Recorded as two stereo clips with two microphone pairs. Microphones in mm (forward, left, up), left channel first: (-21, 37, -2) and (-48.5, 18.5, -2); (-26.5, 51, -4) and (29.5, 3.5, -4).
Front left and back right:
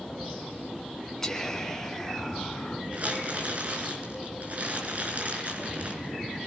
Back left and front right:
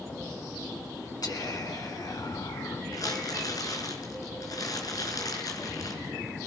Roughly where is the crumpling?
Behind.